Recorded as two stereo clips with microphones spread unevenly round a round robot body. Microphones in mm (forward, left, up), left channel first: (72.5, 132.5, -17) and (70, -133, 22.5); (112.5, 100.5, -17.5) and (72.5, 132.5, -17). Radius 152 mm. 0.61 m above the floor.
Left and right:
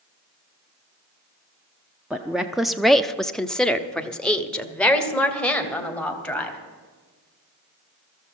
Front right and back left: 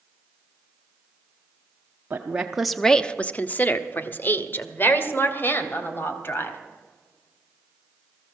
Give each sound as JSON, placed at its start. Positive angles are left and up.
{"t": 2.1, "sound": "a woman speaking", "azimuth_deg": 175, "distance_m": 0.7}